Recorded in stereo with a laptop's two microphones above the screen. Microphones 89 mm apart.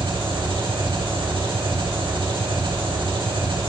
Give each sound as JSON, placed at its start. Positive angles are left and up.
{"t": 0.0, "sound": "an engine running", "side_deg": -75, "distance_m": 1.9}